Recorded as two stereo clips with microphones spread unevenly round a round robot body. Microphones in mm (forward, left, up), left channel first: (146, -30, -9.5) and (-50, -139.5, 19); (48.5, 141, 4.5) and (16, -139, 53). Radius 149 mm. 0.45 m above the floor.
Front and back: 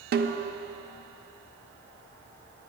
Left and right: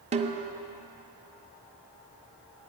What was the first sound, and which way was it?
A snare drum, 165° right.